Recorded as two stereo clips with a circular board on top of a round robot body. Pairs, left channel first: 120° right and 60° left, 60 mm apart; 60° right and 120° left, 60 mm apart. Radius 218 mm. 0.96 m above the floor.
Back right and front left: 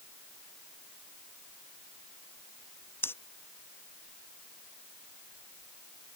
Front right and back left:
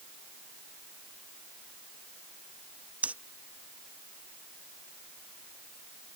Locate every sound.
3.0 s breathing: 170° right